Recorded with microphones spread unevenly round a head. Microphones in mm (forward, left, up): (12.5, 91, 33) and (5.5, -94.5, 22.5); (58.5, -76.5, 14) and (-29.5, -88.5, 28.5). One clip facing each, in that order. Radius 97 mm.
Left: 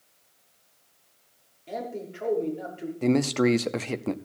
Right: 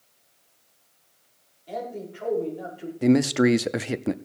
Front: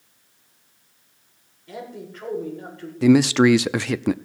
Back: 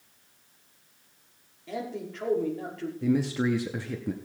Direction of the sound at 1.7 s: 155° left.